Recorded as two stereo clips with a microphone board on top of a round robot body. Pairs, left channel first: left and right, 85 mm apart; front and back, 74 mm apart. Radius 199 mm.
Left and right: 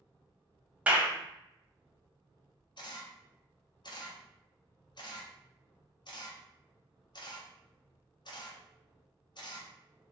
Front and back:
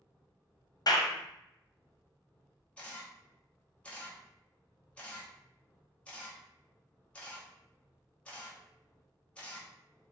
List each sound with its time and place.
0.9 s a clap: 15° right, 0.8 m
2.8 s a camera shutter: 70° left, 0.9 m